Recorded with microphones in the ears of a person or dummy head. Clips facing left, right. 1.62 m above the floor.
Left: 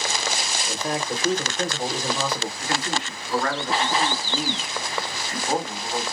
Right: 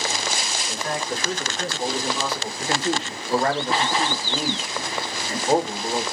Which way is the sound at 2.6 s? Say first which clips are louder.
Right 3 dB; 25° right (ahead or behind).